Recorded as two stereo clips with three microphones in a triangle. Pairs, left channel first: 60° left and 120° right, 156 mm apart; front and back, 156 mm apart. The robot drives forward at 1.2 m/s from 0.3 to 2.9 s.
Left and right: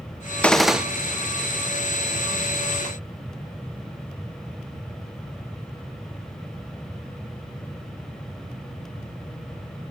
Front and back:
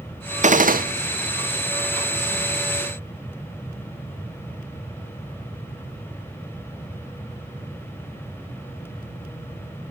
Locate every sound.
0.4 s a gunshot: 140° left, 0.8 m; by 0.8 s 155° left, 1.2 m